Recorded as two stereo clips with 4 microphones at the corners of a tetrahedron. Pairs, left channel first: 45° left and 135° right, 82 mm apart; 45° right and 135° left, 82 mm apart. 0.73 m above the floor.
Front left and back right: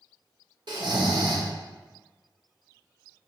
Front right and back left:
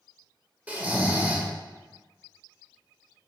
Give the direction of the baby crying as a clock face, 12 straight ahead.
No baby crying in this recording.